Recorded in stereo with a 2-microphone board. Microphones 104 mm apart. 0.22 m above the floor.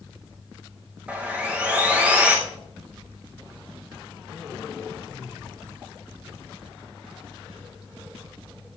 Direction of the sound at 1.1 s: 10° right (ahead or behind).